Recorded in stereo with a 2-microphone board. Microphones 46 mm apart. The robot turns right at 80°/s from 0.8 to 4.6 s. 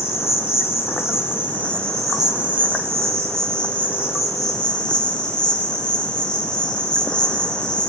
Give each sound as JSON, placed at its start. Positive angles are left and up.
{"t": 0.0, "sound": "an insect", "azimuth_deg": 80, "distance_m": 5.0}